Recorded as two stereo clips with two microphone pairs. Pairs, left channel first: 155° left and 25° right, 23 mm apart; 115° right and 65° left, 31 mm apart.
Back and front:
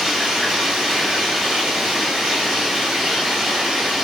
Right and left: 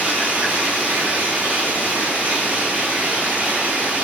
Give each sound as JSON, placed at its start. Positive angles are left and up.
{"t": 0.0, "sound": "running water", "azimuth_deg": 35, "distance_m": 6.0}